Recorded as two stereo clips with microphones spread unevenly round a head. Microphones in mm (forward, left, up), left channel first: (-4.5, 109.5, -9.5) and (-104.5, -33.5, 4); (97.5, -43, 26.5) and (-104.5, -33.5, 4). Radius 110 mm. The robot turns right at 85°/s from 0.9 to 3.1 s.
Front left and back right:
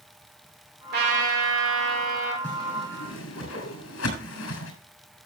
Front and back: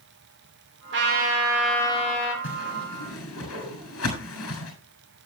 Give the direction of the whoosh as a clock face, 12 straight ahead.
1 o'clock.